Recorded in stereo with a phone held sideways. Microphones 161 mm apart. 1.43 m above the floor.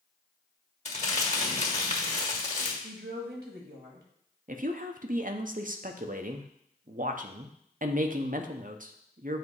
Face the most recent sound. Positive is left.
turn(degrees=-55)  # may be behind; listen again after turning